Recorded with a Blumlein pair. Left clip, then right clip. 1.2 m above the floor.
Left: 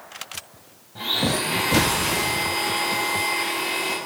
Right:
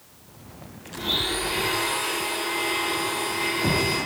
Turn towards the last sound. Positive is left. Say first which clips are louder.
# left 2 dB
turn(degrees=20)